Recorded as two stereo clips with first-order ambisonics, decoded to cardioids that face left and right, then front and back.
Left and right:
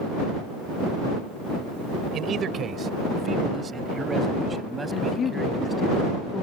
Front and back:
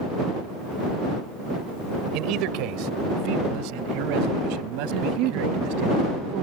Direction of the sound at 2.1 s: 150° right.